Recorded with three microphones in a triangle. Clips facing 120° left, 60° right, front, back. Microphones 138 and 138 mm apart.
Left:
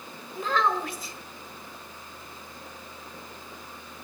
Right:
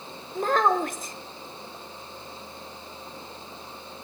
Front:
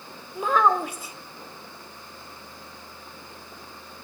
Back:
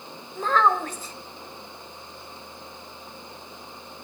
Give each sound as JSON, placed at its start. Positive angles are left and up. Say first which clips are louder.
{"t": 0.3, "sound": "a child speaking", "louder": "right 4 dB, front 1 dB", "azimuth_deg": -75, "distance_m": 0.7}